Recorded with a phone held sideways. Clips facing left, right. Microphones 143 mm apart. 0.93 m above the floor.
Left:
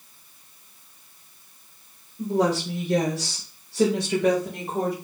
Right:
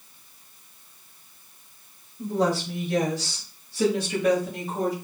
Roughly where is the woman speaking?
Left.